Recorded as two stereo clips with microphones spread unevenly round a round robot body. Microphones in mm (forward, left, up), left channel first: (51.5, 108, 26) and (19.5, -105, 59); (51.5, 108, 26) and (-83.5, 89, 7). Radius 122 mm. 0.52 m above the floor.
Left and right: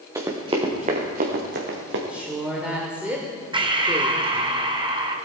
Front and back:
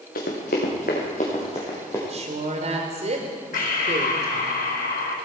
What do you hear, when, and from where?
0.1 s running footsteps: 25° right, 3 m; by 2.0 s 70° right, 3 m
2.1 s a woman speaking: 170° left, 1.4 m
3.5 s breathing: 30° right, 1.3 m